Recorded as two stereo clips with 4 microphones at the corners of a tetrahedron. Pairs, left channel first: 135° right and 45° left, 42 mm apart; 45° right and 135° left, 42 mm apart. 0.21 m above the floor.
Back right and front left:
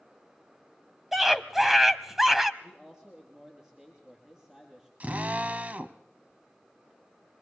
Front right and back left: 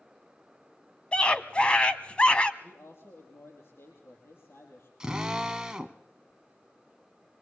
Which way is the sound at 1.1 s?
25° right.